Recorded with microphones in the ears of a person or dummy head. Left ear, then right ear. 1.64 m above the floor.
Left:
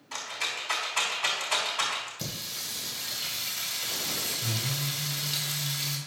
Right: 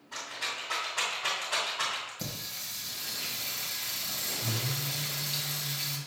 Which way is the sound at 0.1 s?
65° left (ahead or behind).